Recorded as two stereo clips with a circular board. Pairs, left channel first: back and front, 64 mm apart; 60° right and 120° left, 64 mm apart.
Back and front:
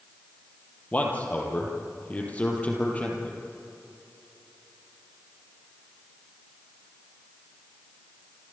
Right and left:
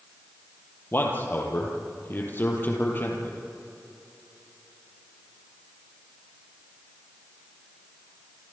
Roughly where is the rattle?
I don't hear a rattle.